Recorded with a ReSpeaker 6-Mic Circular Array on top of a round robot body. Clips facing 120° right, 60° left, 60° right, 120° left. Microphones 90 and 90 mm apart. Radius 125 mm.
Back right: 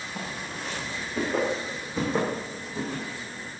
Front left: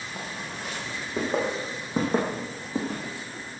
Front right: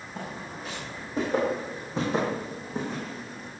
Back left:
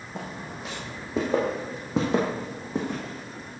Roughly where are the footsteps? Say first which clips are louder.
Back right 1 dB, back left 1 dB; behind left.